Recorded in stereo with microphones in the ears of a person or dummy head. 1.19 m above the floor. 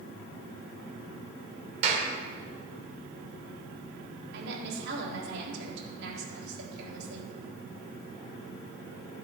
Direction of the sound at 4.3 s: 65° right (ahead or behind).